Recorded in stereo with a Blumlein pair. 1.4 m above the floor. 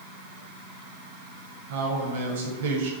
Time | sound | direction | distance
1.7 | a man speaking | 60° right | 1.0 m